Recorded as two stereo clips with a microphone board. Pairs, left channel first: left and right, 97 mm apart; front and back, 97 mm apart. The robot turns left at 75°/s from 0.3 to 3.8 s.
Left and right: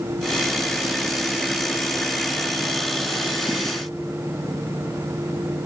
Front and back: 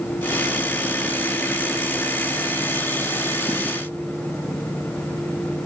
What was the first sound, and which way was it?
Only background noise.